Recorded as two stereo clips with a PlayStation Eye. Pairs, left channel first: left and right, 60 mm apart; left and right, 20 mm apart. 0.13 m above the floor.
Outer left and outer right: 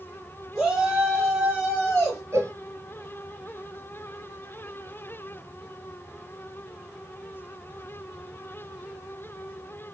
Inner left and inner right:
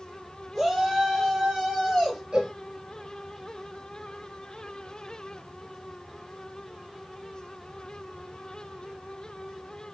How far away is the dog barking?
No dog barking in this recording.